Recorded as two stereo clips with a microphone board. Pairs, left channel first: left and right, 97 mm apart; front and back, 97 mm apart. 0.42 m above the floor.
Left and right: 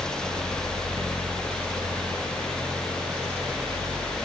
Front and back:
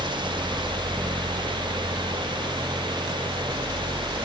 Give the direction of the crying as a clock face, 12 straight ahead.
I don't hear crying.